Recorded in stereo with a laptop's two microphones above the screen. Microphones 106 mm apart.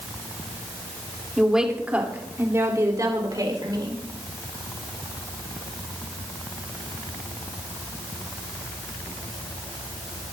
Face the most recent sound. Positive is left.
turn(degrees=-45)  # may be behind; listen again after turning